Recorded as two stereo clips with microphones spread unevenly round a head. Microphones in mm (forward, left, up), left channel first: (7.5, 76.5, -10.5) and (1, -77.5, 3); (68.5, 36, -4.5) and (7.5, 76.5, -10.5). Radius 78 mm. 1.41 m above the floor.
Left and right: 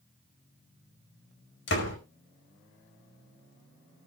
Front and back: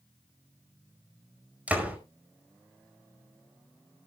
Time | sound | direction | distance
1.7 | a door slam | 75° left | 5 m